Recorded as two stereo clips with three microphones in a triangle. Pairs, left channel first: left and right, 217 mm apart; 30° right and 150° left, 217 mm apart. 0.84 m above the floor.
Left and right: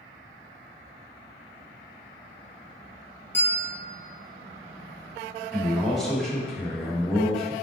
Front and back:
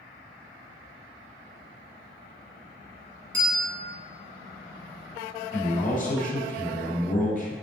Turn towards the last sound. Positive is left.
turn(degrees=0)